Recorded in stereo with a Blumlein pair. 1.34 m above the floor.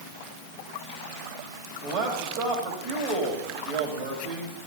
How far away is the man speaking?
About 3 m.